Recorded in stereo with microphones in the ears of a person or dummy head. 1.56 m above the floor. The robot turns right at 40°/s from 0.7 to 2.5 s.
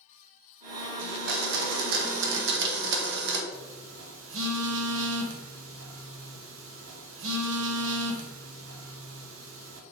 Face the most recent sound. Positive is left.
turn(degrees=-75)  # may be behind; listen again after turning